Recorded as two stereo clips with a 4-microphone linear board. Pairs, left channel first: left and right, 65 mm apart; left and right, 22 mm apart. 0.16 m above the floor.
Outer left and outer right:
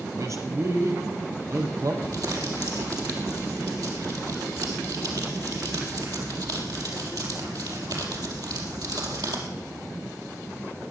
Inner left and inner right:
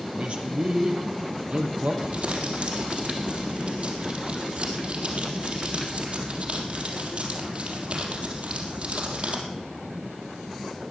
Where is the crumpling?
70° right (ahead or behind), 3.5 m.